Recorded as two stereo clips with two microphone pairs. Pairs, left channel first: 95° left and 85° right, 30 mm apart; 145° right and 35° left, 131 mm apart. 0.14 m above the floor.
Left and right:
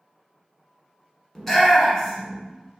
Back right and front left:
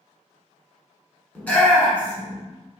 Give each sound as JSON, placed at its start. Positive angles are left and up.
{"t": 1.4, "sound": "a shout", "azimuth_deg": 155, "distance_m": 1.1}